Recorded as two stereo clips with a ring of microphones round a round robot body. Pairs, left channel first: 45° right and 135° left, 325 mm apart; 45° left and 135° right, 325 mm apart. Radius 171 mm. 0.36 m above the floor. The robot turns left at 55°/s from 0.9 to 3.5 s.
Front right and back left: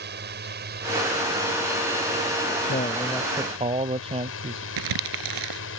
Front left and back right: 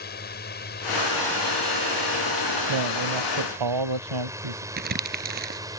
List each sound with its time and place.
0.0 s a drone: 90° left; by 5.8 s 60° right
2.7 s a man speaking: 105° right; by 4.7 s 150° right
4.8 s crumpling: 165° left